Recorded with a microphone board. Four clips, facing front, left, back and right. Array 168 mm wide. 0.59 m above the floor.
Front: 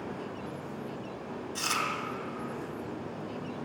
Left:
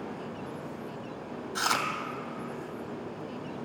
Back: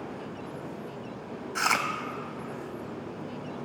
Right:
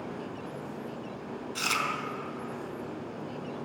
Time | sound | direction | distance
1.6 | chewing | 145° left | 2 m